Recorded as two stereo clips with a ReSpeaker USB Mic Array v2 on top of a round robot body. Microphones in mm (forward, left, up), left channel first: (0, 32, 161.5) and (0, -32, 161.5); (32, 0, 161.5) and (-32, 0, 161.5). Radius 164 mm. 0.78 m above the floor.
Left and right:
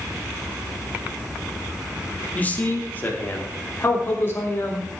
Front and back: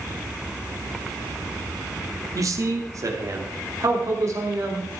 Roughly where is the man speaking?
Behind left.